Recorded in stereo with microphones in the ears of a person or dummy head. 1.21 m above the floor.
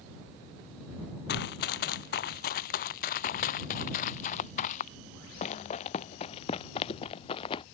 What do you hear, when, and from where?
1.3 s running footsteps: 60° left (ahead or behind); by 7.6 s 30° left (ahead or behind)